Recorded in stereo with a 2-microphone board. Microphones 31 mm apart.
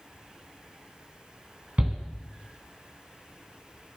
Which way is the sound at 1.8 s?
50° right (ahead or behind).